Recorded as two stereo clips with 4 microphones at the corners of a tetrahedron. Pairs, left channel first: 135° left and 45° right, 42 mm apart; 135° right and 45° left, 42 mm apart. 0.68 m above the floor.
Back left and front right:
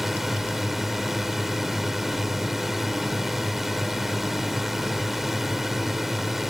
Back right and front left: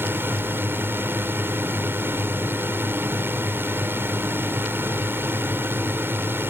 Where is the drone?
40° left.